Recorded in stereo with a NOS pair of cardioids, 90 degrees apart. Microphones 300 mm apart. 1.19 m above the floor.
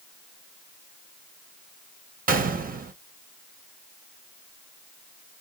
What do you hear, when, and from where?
2.3 s a gunshot: 30° right, 1.0 m